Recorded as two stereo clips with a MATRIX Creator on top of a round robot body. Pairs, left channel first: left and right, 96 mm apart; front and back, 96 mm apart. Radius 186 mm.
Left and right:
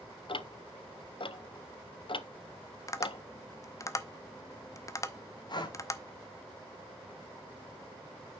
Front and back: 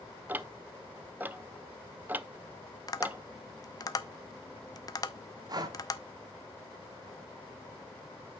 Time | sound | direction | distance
0.3 | ticking | 110° left | 0.7 m
2.9 | tapping | 40° left | 0.9 m
5.5 | breathing | 135° left | 1.5 m